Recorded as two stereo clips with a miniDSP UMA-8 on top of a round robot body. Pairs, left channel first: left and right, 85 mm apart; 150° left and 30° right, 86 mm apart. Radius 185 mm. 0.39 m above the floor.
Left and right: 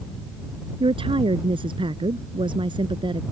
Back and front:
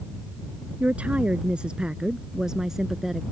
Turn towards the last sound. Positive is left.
turn(degrees=-115)